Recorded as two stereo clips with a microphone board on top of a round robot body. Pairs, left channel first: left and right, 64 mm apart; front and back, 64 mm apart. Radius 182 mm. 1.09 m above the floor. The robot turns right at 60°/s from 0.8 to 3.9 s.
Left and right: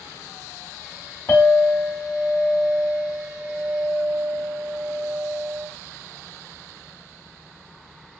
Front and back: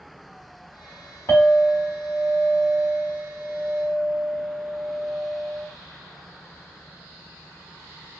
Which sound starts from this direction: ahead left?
A clink, at 1.3 s.